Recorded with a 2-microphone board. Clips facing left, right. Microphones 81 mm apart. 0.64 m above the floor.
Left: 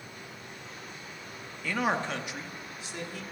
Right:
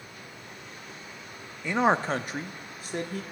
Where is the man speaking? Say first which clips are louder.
Right 5 dB; 20° right (ahead or behind), 0.6 m; by 3.2 s 50° right (ahead or behind), 1.0 m.